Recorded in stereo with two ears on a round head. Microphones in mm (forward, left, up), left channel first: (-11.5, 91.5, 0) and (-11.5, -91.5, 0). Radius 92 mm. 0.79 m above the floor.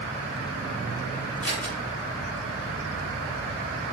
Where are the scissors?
5° left (ahead or behind), 2 m.